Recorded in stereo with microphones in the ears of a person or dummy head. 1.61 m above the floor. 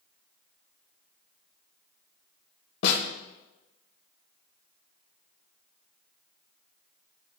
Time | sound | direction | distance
2.8 | a snare drum | 70° left (ahead or behind) | 1.1 m